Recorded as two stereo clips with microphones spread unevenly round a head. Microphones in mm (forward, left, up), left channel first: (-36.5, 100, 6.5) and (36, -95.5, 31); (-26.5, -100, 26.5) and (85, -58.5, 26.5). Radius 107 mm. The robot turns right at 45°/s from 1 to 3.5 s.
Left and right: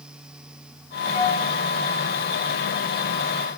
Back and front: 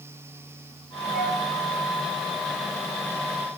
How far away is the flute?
About 7 m.